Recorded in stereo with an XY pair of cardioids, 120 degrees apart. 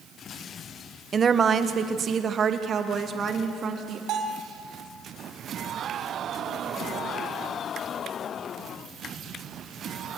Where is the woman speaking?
30° right, 1.4 m; by 4.0 s 45° right, 4 m.